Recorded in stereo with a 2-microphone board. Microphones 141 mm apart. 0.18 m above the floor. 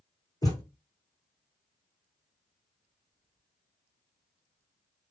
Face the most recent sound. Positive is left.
turn(degrees=25)  # may be behind; listen again after turning